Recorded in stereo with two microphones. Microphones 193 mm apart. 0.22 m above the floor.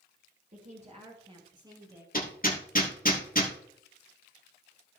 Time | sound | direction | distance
0.5 | a woman speaking | 45° right (ahead or behind) | 4 m
2.1 | hammering | 45° left (ahead or behind) | 3 m